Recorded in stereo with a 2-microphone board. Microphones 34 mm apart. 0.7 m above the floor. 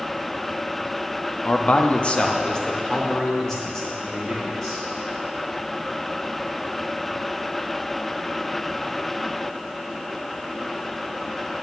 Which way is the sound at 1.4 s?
40° left (ahead or behind).